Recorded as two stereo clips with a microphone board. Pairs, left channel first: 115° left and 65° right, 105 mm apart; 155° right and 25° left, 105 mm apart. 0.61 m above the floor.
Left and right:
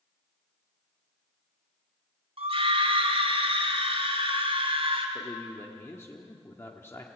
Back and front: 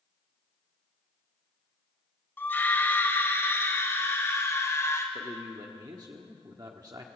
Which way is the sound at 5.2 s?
55° left.